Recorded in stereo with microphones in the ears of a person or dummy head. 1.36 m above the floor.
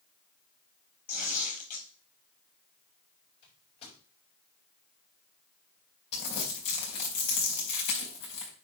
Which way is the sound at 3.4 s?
30° left (ahead or behind).